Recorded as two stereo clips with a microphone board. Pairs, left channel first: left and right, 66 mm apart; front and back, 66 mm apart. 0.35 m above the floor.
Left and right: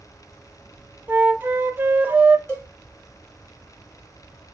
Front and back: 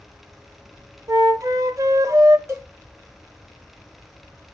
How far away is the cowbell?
About 1.7 m.